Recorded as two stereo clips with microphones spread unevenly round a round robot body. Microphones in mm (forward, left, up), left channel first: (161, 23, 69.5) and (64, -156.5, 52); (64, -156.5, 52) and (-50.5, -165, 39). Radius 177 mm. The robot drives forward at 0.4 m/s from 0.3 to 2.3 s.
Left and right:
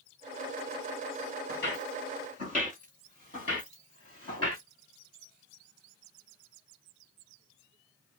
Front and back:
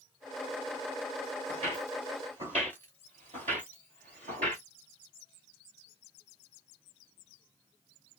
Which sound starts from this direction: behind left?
Footsteps, at 1.5 s.